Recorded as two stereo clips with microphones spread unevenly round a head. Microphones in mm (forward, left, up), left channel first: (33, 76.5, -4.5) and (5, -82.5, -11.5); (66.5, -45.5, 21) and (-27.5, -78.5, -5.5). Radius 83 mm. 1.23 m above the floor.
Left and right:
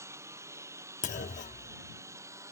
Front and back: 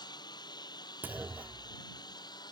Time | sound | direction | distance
0.0 | a lawn mower | 25° right | ?
1.0 | a clunk | 110° left | ?